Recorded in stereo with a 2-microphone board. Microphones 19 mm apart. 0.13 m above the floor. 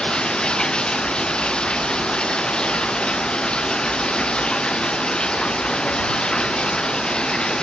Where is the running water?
55° left (ahead or behind).